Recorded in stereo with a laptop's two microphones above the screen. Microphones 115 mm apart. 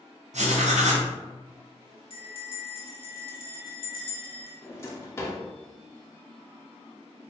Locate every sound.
0.3 s writing: 85° right, 0.7 m
2.1 s a bell: 50° left (ahead or behind), 0.8 m
4.6 s a drawer: 25° left (ahead or behind), 0.8 m